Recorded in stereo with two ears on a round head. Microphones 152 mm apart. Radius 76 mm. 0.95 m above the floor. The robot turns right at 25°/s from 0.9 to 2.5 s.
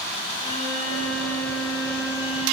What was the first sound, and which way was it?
A violin, 35° left.